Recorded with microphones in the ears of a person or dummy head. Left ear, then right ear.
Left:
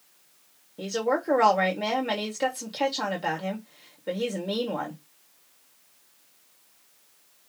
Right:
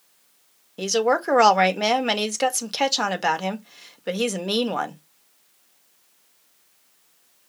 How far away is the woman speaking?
About 1.2 m.